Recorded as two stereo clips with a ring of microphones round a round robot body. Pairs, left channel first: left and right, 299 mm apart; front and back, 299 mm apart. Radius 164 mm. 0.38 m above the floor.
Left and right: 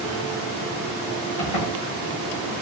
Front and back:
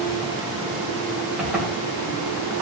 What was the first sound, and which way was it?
A zipper, 95° left.